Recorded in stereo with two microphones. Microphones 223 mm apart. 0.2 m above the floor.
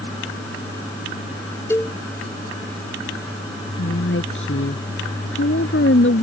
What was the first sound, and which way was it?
A cowbell, 10° left (ahead or behind).